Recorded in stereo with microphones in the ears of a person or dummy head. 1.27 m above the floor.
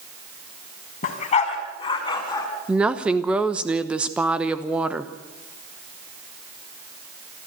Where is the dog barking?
40° left (ahead or behind), 2.5 m; by 2.5 s 20° left (ahead or behind), 3.5 m.